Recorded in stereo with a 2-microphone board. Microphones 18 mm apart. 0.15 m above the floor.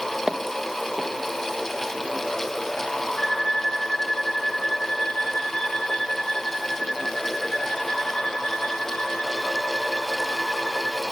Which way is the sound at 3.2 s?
45° left (ahead or behind).